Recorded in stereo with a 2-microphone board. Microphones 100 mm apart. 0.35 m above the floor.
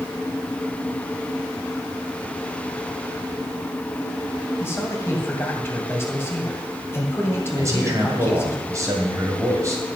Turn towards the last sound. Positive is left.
turn(degrees=-30)  # may be behind; listen again after turning